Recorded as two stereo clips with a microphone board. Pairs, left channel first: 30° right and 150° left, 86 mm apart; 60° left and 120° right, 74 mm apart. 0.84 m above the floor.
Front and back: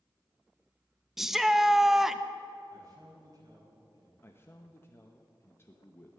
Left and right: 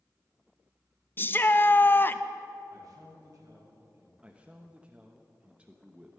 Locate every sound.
1.2 s a shout: 70° left, 0.6 m
2.7 s a man speaking: 160° right, 4.5 m
4.2 s a man speaking: 60° right, 0.9 m